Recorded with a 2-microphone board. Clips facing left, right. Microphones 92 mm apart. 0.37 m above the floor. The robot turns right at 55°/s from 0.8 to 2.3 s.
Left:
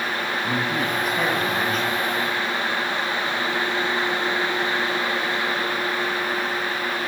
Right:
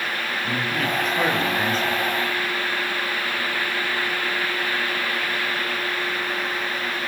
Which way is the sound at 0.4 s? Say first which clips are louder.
Even; 160° left.